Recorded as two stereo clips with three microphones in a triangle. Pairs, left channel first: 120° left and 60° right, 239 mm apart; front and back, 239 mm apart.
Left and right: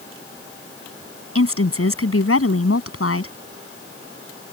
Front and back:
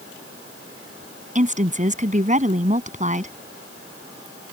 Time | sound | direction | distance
1.4 | a woman speaking | 125° left | ?